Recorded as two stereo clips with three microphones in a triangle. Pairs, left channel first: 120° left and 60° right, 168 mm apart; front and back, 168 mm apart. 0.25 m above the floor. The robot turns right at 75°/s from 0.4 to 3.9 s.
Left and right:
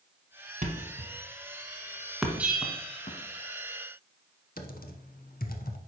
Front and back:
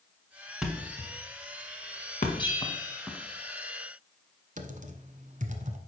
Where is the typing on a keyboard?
140° left, 0.8 m.